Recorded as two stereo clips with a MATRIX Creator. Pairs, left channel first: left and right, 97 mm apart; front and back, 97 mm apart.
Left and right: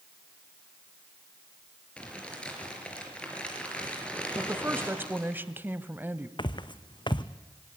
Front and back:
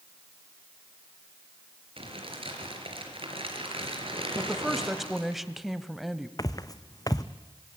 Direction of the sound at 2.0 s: 170° left.